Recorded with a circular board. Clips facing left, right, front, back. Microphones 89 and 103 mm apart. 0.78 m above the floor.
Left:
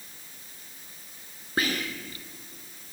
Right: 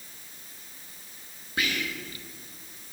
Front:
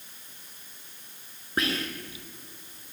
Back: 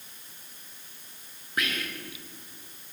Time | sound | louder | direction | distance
1.6 | whispering | left 2 dB, front 3 dB | 50° left | 0.8 m